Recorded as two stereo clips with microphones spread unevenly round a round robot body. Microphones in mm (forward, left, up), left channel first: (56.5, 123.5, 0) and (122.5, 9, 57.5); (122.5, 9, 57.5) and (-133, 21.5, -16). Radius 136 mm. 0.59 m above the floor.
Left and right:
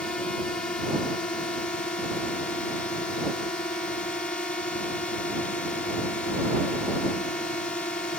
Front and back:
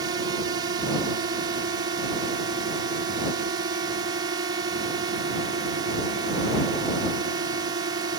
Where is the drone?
150° left.